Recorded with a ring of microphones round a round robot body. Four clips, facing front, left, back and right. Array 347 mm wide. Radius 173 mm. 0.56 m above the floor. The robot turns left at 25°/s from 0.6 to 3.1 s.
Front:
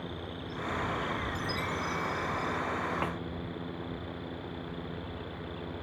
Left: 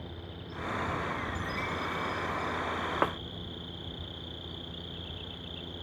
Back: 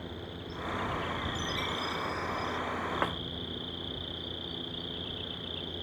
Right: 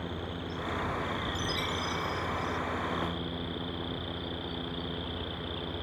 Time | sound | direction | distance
0.0 | an insect | 110° right | ?
1.4 | a chime | 80° right | ?
3.0 | a snare drum | 100° left | ?